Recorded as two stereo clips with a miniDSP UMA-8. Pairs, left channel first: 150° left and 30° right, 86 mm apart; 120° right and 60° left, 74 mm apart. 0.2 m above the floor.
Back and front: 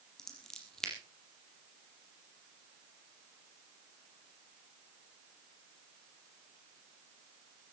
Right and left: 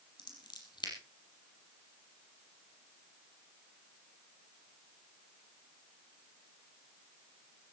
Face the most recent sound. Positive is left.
turn(degrees=-125)